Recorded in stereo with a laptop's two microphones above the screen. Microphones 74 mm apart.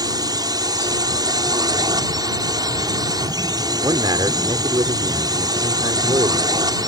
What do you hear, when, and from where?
0.0 s a drone: 60° right (ahead or behind)
3.8 s a man speaking: 75° right (ahead or behind)